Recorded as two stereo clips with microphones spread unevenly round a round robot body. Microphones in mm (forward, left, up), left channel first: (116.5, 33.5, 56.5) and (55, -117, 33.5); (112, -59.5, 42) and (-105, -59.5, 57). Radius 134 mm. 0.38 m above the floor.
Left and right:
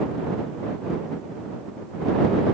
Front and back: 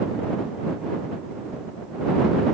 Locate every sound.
Only background noise.